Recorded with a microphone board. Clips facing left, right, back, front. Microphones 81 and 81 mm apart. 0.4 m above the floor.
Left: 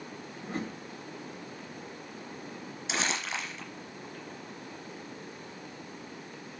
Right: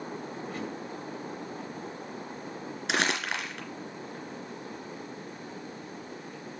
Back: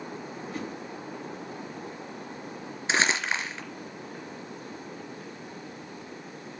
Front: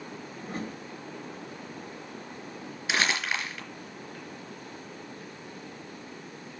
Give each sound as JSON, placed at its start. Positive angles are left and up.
{"t": 0.4, "sound": "a whoosh", "azimuth_deg": 40, "distance_m": 2.0}
{"t": 2.9, "sound": "crumpling", "azimuth_deg": -115, "distance_m": 3.5}